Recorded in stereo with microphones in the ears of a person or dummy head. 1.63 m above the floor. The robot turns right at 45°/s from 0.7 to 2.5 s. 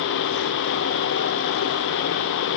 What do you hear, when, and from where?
Only background noise.